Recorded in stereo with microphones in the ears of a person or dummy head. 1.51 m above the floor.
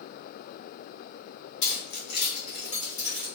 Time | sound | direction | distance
1.6 | keys jangling | 65° left (ahead or behind) | 1.0 m